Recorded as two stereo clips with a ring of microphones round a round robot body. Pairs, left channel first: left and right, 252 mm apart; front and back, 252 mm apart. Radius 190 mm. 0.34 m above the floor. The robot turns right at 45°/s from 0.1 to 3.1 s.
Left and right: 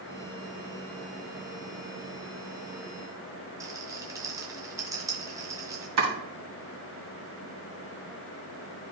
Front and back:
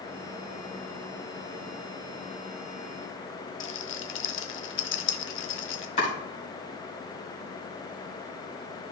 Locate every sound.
3.6 s a rattle: 15° right, 0.7 m
6.0 s chopping: 65° right, 2.5 m